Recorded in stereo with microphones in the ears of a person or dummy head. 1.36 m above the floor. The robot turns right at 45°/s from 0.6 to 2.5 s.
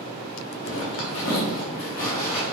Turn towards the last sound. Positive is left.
turn(degrees=20)  # may be behind; listen again after turning